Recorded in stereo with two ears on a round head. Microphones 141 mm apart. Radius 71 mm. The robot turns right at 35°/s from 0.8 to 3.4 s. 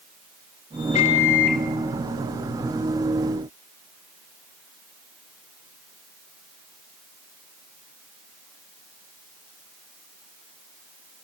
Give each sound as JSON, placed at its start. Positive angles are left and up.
{"t": 0.9, "sound": "a microwave", "side_deg": 40, "distance_m": 1.5}